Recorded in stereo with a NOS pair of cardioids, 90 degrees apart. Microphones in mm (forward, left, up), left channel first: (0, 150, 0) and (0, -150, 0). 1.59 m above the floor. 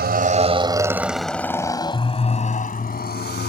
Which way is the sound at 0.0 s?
35° right.